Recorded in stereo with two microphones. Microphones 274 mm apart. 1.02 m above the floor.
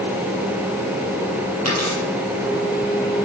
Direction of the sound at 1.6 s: 60° right (ahead or behind).